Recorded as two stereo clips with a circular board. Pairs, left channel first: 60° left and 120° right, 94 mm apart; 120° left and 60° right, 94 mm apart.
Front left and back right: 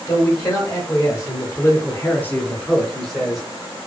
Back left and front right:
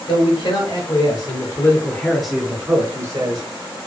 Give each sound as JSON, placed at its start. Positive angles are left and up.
{"t": 0.1, "sound": "a man speaking", "azimuth_deg": 110, "distance_m": 1.5}